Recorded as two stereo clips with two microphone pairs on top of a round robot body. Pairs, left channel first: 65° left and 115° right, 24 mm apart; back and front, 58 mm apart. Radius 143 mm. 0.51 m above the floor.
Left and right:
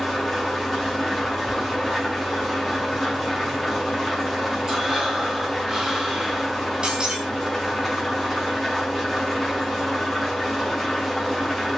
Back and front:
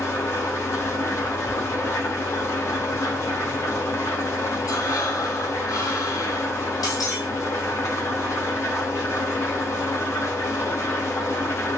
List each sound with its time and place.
0.0 s an engine running: 145° left, 3.5 m
4.7 s breathing: 170° left, 4.5 m
6.8 s breaking glass: 175° right, 1.9 m